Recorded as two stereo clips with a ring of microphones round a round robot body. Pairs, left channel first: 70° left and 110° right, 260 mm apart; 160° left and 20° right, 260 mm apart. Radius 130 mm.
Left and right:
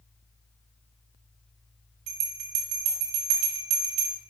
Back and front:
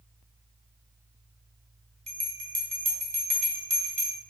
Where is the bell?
90° right, 2 m.